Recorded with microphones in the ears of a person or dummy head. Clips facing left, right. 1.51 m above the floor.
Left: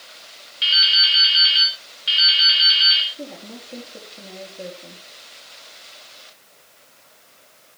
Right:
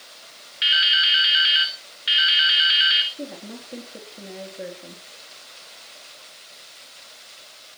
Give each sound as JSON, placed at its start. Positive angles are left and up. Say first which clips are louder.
{"t": 0.6, "sound": "dripping", "louder": "right 2 dB", "side_deg": -20, "distance_m": 2.5}
{"t": 3.1, "sound": "a woman speaking", "louder": "even", "side_deg": -5, "distance_m": 3.5}